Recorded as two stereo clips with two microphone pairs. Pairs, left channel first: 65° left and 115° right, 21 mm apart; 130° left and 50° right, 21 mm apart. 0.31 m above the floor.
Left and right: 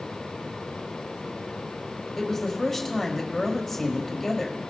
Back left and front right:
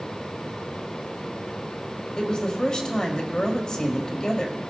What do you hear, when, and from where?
2.2 s a woman speaking: 135° left, 1.4 m